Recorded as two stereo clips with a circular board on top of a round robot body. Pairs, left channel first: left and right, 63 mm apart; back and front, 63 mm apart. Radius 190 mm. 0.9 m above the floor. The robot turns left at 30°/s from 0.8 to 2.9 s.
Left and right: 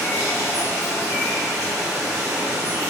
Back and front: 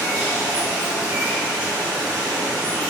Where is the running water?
25° left, 1.3 m; by 2.9 s 40° right, 1.3 m.